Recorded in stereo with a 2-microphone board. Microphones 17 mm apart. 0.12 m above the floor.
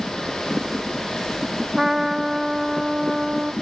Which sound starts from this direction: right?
A trumpet, at 1.8 s.